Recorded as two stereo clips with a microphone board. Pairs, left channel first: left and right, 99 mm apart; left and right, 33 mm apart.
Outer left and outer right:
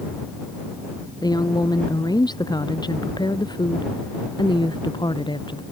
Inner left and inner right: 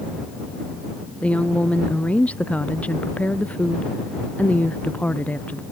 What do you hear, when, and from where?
1.2 s a woman speaking: 45° left (ahead or behind); by 5.6 s 55° left (ahead or behind)